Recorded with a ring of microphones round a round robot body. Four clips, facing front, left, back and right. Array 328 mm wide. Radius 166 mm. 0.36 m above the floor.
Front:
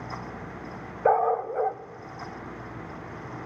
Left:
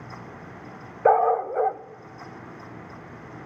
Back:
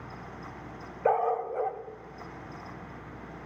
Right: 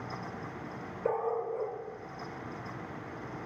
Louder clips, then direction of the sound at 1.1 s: Left 12 dB, front 4 dB; 75° left.